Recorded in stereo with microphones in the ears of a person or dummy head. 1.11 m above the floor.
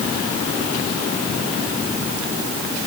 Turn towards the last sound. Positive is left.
No sound to turn to.